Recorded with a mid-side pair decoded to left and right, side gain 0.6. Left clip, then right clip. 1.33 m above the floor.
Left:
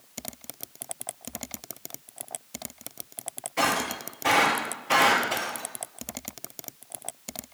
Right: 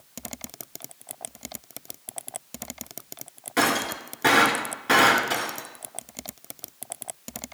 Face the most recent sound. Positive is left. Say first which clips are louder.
# right 2 dB
turn(degrees=-70)